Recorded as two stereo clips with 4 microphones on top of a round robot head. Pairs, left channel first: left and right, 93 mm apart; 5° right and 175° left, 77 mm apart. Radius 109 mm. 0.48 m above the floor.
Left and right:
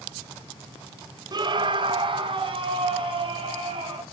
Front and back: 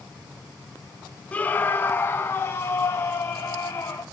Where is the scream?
70° right, 1.0 m; by 4.0 s 60° right, 3.5 m.